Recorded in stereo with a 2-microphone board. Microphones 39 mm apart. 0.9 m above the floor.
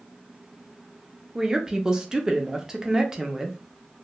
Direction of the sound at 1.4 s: 15° right (ahead or behind).